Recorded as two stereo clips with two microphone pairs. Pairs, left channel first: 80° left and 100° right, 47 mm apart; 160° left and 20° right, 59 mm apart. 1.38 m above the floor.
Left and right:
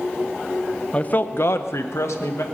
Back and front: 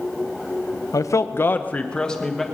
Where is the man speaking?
145° left, 0.8 m; by 2.4 s 75° left, 1.6 m.